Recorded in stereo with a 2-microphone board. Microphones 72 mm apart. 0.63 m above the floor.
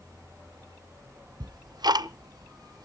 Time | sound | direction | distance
1.4 | ticking | 80° right | 0.5 m